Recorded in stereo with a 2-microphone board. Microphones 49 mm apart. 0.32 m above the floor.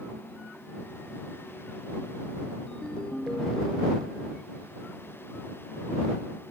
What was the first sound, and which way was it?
A ringtone, 15° left (ahead or behind).